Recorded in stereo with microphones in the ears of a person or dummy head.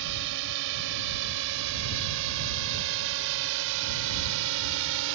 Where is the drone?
70° right (ahead or behind); by 5.2 s 75° right (ahead or behind).